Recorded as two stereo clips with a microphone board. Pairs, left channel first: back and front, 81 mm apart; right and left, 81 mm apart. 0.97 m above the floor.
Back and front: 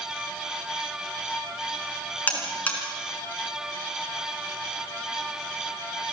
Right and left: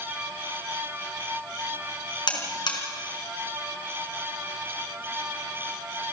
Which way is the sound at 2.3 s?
110° right.